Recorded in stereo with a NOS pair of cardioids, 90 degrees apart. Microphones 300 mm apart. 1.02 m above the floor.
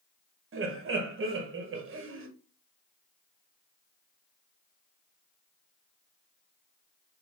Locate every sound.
0.5 s laughter: 45° right, 1.0 m